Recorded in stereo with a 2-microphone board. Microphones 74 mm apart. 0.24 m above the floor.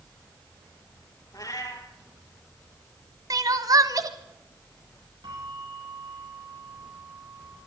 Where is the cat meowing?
50° left (ahead or behind), 3 m.